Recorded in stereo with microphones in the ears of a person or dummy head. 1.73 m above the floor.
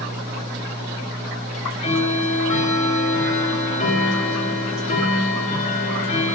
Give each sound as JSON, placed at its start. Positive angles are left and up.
{"t": 1.5, "sound": "ticking", "side_deg": 40, "distance_m": 1.3}